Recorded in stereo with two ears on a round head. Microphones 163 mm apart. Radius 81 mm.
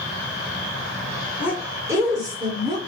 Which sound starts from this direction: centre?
A woman speaking, at 1.4 s.